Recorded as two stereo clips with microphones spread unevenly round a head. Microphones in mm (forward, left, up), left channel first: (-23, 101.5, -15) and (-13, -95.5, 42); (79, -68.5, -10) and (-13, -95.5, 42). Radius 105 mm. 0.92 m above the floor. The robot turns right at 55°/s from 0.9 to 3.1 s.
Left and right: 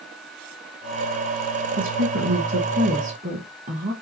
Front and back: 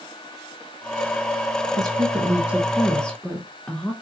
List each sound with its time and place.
1.8 s a woman speaking: 100° right, 1.0 m; by 3.9 s 25° right, 1.0 m